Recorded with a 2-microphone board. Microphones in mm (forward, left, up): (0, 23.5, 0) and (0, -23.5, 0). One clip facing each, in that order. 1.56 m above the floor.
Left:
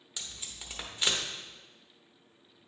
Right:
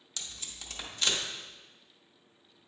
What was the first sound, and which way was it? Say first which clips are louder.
Tape being pulled: even; 15° left (ahead or behind).